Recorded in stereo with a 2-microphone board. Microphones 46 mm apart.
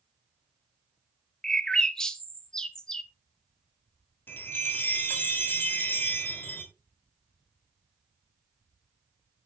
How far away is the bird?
About 0.9 m.